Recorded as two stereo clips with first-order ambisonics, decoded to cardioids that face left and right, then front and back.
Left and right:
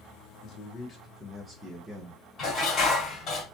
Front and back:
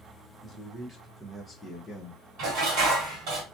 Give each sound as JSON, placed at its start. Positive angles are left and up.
{"t": 0.4, "sound": "a man speaking", "azimuth_deg": 120, "distance_m": 0.9}
{"t": 2.4, "sound": "dishes clattering", "azimuth_deg": 145, "distance_m": 1.5}